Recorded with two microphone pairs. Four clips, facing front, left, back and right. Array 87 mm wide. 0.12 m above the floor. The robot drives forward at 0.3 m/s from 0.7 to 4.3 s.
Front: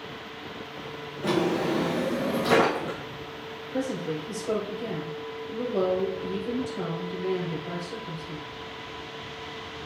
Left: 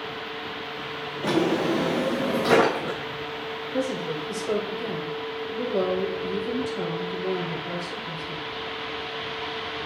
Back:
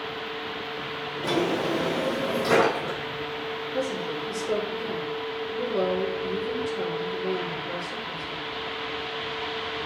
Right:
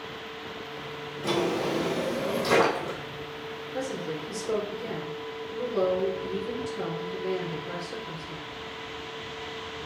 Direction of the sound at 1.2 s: 75° left.